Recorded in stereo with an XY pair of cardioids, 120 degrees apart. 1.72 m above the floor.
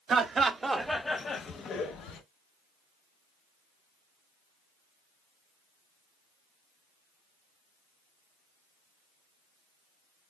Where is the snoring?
I don't hear snoring.